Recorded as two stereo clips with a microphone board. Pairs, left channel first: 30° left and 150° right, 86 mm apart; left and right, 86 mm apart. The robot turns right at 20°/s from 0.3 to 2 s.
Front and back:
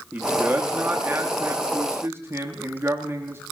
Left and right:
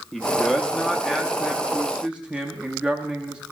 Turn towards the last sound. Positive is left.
turn(degrees=-160)